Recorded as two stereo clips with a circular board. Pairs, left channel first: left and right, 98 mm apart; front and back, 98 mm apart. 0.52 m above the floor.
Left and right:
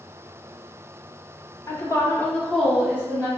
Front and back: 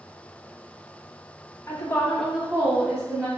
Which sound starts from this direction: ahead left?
A woman speaking, at 1.7 s.